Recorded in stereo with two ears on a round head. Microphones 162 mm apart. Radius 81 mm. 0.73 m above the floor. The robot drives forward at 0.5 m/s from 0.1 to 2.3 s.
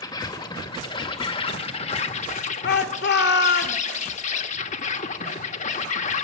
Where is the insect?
20° left (ahead or behind), 2.5 m; by 6.2 s 40° left (ahead or behind), 1.4 m.